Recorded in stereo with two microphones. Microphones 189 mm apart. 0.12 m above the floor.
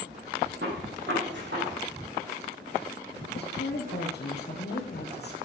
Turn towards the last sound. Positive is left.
turn(degrees=60)  # may be behind; listen again after turning